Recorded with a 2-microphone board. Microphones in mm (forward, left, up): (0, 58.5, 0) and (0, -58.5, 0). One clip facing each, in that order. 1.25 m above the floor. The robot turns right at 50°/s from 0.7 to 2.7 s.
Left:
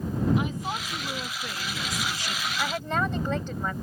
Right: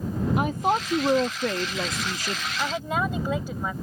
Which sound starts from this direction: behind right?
A woman speaking, at 0.4 s.